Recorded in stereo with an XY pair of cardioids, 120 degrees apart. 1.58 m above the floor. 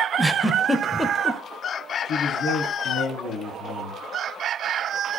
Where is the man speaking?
70° left, 3.5 m.